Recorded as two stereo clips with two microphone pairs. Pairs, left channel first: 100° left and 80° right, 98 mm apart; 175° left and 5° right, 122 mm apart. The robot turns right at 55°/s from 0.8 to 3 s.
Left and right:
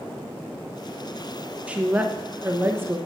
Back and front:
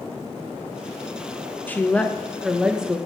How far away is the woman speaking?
About 0.7 m.